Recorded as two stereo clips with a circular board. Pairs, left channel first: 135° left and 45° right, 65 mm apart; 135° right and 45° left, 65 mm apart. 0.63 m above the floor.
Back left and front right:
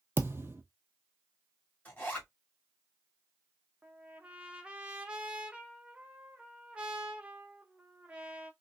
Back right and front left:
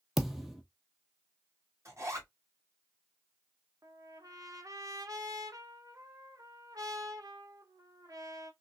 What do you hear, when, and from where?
0.2 s a thud: 40° right, 0.7 m
1.9 s a zipper: 75° left, 2 m
3.8 s a trumpet: 25° left, 0.8 m